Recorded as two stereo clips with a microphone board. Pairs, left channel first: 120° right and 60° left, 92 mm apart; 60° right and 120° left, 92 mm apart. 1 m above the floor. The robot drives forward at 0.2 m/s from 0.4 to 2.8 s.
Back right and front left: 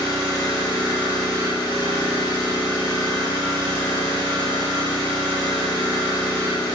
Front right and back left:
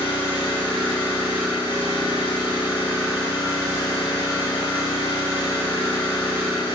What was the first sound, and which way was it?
An engine running, 80° right.